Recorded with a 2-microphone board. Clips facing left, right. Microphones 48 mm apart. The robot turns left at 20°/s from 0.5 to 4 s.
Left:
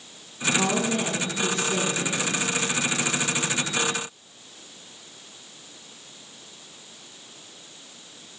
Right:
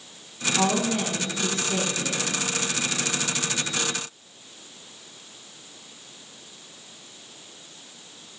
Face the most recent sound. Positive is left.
turn(degrees=-170)